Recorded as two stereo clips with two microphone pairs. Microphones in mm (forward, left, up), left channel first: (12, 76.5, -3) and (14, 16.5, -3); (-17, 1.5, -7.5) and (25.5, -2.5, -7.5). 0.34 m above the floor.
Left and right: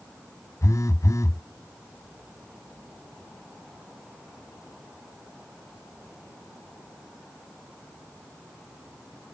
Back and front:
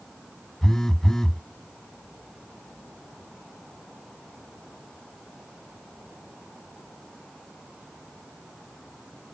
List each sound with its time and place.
0.6 s a phone buzzing: 100° left